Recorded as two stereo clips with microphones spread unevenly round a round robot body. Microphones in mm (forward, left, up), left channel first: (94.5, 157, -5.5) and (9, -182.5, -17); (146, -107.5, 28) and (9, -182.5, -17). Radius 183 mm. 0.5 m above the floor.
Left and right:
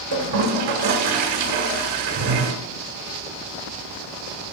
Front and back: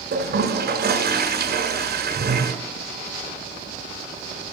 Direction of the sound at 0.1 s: 135° right.